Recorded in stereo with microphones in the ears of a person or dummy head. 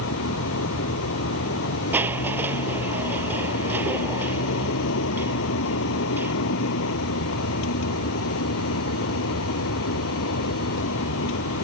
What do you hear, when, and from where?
0.0 s a vehicle: 80° left
1.9 s crushing: 10° right (ahead or behind)